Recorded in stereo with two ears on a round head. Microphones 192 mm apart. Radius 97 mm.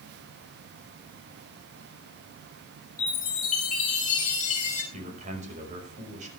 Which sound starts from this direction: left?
A chime, at 3.0 s.